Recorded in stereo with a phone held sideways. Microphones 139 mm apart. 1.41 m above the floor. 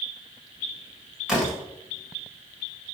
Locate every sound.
1.3 s a door slam: 5° right (ahead or behind), 5 m